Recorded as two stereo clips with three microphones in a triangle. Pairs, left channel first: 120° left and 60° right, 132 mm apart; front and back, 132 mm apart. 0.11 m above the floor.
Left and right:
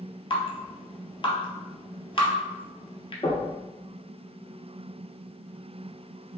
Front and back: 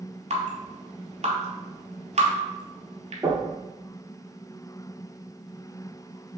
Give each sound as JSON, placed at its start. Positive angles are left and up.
{"t": 0.3, "sound": "dripping", "azimuth_deg": 160, "distance_m": 0.7}
{"t": 3.2, "sound": "knocking", "azimuth_deg": 115, "distance_m": 1.6}